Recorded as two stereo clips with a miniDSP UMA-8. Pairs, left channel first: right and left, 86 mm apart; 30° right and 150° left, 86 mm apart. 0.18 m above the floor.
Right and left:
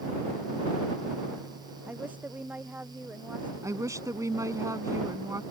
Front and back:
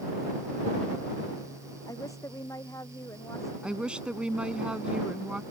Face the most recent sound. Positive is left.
turn(degrees=80)